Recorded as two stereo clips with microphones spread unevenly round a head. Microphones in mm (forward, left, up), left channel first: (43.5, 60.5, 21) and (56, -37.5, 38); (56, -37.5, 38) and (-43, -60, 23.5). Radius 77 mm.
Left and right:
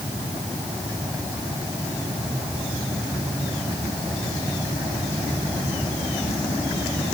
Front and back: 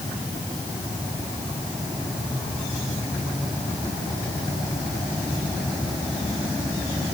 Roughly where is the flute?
No flute in this recording.